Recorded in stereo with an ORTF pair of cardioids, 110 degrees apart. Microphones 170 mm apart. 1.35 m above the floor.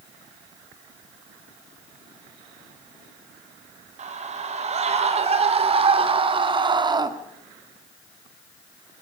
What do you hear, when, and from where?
4.0 s a scream: 45° right, 5.5 m; by 7.1 s 25° right, 2.5 m